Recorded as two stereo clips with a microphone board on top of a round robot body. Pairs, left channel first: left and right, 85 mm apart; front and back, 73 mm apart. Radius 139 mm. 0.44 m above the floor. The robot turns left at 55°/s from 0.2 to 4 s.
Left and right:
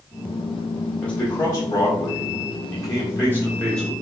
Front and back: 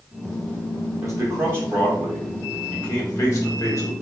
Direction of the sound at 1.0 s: 165° left.